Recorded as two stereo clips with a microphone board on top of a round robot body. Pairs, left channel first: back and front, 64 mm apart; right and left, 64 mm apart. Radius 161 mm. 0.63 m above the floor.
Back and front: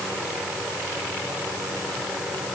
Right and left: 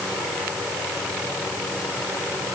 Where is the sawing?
I don't hear sawing.